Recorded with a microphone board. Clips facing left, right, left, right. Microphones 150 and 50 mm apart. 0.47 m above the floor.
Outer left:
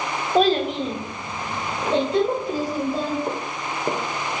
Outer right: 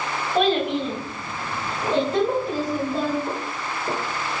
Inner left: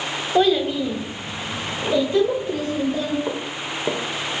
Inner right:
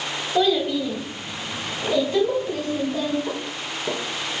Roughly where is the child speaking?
Left.